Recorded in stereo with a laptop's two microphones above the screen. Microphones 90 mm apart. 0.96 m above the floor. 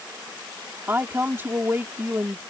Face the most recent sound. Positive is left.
turn(degrees=-25)  # may be behind; listen again after turning